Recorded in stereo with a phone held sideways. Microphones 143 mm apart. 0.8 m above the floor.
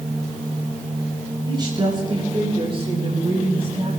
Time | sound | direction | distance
1.5 | a woman speaking | 30° right (ahead or behind) | 7 m